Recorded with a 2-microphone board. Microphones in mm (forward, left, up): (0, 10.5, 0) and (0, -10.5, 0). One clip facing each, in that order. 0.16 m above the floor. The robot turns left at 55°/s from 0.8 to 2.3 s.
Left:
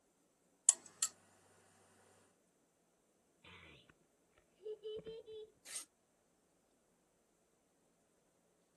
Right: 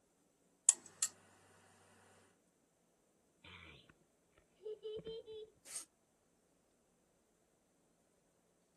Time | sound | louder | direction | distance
0.7 | a buzzer | even | 25° left (ahead or behind) | 0.6 m
3.4 | a child speaking | right 2 dB | 15° right (ahead or behind) | 1.4 m
5.7 | tearing paper | left 2 dB | 65° left (ahead or behind) | 0.7 m